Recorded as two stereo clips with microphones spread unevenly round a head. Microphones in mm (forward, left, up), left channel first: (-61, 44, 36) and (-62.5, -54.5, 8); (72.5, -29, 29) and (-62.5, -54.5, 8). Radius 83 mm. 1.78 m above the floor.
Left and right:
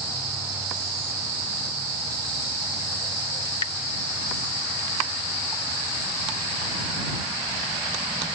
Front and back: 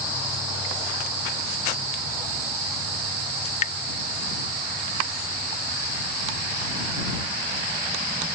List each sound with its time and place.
3.5 s dripping: 50° left